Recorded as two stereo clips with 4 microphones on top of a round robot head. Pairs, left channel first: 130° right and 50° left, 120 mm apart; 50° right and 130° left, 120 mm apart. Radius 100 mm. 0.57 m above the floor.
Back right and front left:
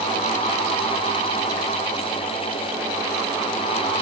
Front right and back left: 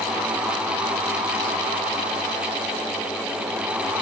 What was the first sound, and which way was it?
Only background noise.